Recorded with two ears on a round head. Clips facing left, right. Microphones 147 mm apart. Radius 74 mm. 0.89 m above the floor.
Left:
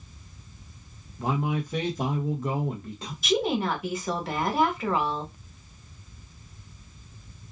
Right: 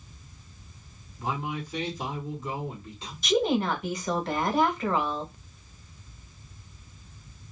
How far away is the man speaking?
About 1.0 m.